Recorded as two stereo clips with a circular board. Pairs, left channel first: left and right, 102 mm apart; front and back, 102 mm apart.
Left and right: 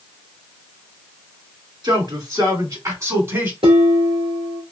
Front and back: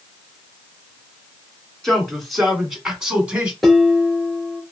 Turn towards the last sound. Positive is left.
turn(degrees=-90)